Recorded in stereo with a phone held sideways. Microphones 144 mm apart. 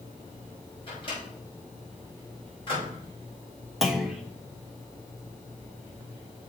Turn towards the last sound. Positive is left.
turn(degrees=0)  # may be behind; listen again after turning